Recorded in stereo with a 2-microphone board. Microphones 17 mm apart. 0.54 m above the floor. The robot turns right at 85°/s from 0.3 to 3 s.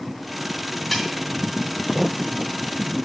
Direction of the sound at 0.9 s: 10° left (ahead or behind).